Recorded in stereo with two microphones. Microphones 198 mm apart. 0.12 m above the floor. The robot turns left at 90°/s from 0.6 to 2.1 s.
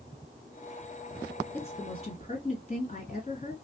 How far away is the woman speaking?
About 2.0 m.